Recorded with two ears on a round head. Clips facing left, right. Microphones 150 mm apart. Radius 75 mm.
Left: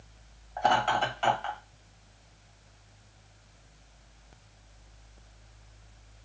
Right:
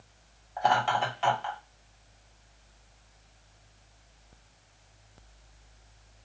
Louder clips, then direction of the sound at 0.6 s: Even; centre (ahead or behind).